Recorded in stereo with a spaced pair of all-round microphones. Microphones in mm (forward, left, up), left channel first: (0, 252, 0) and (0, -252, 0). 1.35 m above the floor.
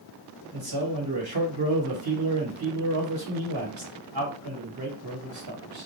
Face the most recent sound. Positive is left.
turn(degrees=-45)  # may be behind; listen again after turning